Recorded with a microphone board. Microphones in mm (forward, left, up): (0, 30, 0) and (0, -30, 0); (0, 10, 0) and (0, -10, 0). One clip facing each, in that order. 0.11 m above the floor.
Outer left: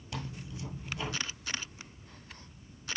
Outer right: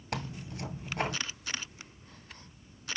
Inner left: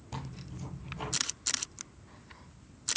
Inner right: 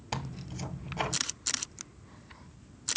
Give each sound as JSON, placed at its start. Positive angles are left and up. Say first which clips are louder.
{"t": 0.1, "sound": "tearing paper", "louder": "outer right 4 dB, inner right 5 dB", "side_deg": -55, "distance_m": 1.5}